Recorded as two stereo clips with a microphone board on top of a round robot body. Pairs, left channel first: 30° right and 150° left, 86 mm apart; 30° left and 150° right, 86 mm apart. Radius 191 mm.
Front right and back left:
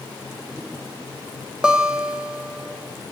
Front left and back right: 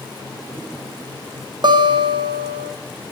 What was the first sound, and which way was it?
A guitar, 130° right.